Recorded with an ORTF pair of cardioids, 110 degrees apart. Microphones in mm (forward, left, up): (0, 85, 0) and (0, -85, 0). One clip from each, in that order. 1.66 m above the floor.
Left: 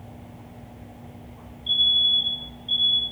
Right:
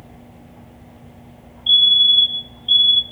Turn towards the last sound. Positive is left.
turn(degrees=-55)